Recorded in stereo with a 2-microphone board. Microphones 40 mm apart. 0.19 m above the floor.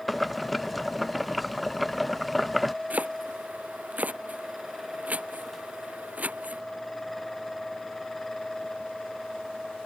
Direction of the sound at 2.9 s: 40° right (ahead or behind).